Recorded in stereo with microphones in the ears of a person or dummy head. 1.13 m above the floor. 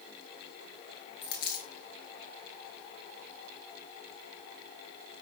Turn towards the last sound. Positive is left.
turn(degrees=25)  # may be behind; listen again after turning